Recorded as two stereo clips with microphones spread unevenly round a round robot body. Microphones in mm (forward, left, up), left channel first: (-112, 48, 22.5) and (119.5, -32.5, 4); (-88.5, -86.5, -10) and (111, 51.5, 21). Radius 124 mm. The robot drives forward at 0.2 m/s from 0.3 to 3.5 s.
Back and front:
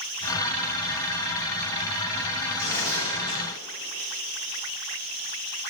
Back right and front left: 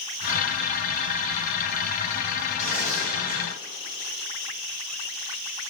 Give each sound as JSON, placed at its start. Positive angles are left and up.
{"t": 2.6, "sound": "tearing paper", "azimuth_deg": 120, "distance_m": 5.0}